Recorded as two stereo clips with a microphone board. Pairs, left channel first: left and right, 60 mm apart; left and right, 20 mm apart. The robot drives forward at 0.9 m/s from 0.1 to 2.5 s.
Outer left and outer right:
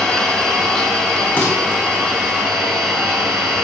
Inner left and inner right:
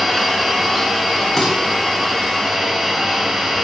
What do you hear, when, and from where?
0.0 s an engine running: 10° left (ahead or behind), 1.4 m; by 3.6 s 5° left (ahead or behind), 3.5 m
1.4 s dishes clattering: 30° left (ahead or behind), 2 m